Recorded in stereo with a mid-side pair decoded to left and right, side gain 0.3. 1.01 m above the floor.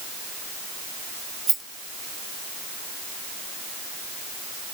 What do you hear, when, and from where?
1.5 s a rattle: 45° right, 1.2 m